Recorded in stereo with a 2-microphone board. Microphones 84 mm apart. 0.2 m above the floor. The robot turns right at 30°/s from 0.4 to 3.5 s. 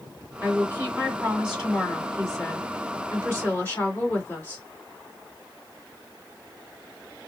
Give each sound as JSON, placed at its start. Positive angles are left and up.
{"t": 0.4, "sound": "a woman speaking", "azimuth_deg": -45, "distance_m": 1.9}